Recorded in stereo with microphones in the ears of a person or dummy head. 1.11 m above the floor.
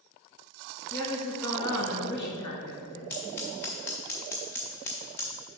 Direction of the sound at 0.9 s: 20° left (ahead or behind).